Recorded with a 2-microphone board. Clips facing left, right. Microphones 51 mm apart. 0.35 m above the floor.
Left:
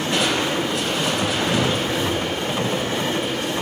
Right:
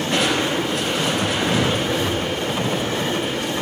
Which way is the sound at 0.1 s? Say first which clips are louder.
Right 1 dB; centre (ahead or behind).